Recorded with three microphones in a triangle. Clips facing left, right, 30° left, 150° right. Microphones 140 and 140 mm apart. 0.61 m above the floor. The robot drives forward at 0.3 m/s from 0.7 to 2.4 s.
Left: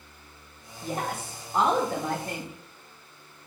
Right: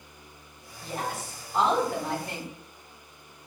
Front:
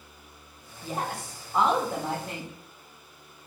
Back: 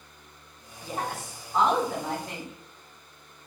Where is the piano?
I don't hear a piano.